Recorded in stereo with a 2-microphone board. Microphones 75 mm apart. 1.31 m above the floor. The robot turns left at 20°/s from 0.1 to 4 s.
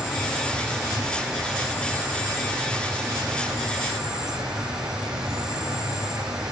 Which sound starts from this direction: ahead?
An insect, at 0.0 s.